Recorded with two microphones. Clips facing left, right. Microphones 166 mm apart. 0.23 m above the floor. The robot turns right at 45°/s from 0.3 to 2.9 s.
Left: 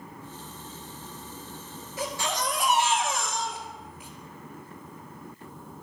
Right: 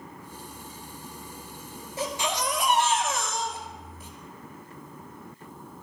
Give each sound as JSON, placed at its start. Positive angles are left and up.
{"t": 2.0, "sound": "a baby crying", "azimuth_deg": -30, "distance_m": 1.9}